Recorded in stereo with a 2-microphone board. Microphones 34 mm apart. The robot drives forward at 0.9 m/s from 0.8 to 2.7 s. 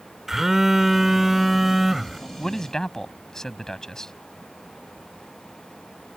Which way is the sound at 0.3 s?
10° right (ahead or behind).